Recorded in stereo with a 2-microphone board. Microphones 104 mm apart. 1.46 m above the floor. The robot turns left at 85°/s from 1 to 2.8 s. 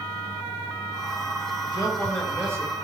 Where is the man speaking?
55° left, 2.5 m; by 2.7 s 40° right, 2.5 m.